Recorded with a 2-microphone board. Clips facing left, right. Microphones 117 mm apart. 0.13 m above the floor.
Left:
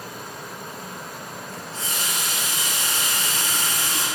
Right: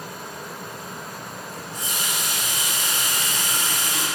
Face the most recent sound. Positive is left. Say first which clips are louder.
# even
turn(degrees=-15)  # may be behind; listen again after turning